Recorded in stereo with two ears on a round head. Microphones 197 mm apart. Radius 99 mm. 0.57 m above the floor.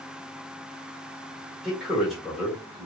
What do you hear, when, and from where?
1.6 s a man speaking: centre (ahead or behind), 1.3 m